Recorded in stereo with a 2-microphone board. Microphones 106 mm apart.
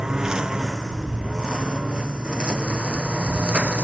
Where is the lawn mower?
5° right (ahead or behind); by 3.8 s 10° right (ahead or behind).